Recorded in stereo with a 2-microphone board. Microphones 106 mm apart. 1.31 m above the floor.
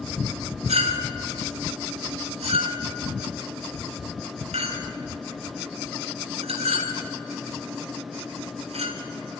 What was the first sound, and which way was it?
A clink, 80° right.